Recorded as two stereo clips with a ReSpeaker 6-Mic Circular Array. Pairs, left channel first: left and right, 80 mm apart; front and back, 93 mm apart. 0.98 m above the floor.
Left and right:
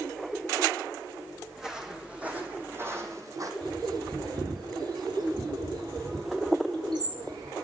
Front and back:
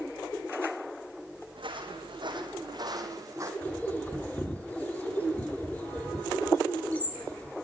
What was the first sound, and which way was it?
Footsteps, 175° right.